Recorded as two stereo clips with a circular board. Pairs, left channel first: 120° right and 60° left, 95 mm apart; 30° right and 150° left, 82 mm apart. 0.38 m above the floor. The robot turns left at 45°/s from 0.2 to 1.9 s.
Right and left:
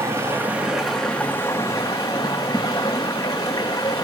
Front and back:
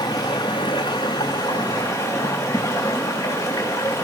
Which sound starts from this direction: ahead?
Running water, at 0.0 s.